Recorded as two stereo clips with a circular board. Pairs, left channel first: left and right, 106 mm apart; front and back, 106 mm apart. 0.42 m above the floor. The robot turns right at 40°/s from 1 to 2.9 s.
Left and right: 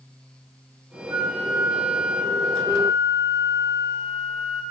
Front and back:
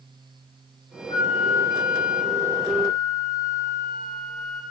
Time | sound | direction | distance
1.1 | a flute | 25° right | 8 m